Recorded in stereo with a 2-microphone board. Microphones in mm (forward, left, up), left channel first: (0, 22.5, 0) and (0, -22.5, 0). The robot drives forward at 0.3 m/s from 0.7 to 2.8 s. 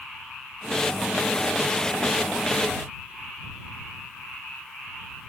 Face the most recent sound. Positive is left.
No sound to turn to.